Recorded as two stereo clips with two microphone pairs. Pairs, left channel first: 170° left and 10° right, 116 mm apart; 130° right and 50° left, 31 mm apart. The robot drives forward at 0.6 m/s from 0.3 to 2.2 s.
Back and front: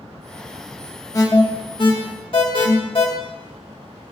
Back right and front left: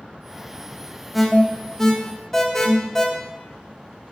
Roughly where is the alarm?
Behind left.